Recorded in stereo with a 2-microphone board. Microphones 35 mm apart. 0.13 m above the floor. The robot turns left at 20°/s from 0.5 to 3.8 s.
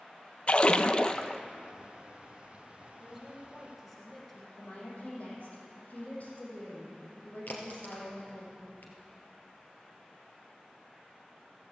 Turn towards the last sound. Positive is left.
turn(degrees=65)  # may be behind; listen again after turning